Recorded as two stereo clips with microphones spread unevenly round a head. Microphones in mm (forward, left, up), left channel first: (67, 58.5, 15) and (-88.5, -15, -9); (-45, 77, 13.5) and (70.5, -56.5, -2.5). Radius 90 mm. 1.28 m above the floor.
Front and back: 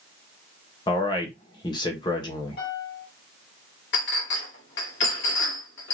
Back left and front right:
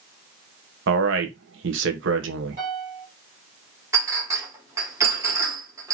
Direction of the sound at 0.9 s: 45° right.